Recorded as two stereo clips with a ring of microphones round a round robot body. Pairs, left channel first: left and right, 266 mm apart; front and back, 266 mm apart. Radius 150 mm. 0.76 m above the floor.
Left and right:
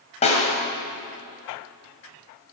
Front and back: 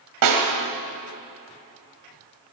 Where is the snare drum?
160° left, 2 m.